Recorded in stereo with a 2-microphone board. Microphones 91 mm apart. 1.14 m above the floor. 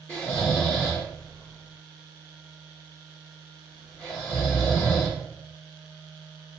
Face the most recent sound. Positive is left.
turn(degrees=20)  # may be behind; listen again after turning